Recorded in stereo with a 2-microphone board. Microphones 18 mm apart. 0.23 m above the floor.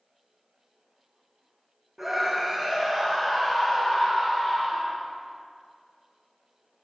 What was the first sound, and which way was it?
A scream, 20° right (ahead or behind).